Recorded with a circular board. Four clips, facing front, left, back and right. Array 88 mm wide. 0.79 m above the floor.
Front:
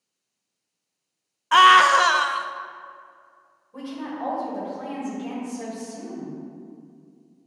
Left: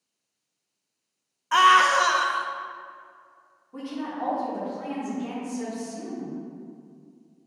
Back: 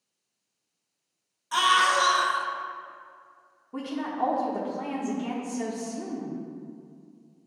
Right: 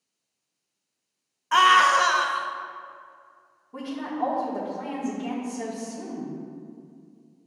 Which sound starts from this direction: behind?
A woman speaking, at 3.7 s.